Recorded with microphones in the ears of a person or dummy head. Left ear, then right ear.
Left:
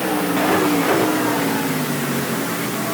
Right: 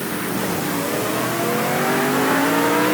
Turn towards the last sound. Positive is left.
No sound to turn to.